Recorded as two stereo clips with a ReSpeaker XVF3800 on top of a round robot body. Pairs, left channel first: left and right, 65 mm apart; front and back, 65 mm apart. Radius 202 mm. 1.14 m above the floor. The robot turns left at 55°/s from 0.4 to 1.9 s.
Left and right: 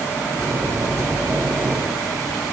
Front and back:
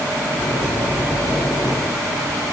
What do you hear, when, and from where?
Only background noise.